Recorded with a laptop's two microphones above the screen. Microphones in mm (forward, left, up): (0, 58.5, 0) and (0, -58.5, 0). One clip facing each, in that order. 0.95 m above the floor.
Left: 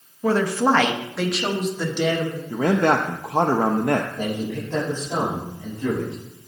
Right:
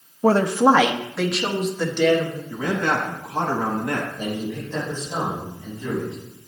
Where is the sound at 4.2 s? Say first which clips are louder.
Left 1 dB; 70° left (ahead or behind), 6 m.